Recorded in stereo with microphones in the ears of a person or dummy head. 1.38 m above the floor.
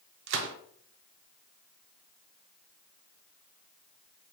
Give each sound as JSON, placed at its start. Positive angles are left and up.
{"t": 0.3, "sound": "a gunshot", "side_deg": -65, "distance_m": 0.6}